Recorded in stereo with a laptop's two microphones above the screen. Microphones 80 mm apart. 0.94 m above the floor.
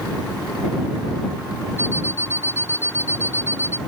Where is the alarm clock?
30° left (ahead or behind).